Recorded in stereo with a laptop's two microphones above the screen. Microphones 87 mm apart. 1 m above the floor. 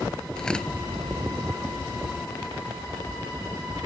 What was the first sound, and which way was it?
Tearing paper, 10° left (ahead or behind).